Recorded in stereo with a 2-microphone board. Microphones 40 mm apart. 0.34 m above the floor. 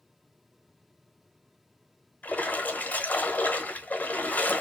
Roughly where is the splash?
Left.